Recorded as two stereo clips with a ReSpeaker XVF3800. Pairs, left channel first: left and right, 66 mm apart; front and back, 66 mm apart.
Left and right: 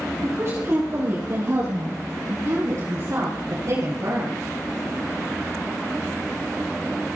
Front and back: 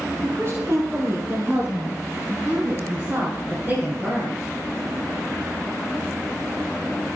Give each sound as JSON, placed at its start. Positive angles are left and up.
{"t": 0.2, "sound": "a woman speaking", "azimuth_deg": -135, "distance_m": 6.0}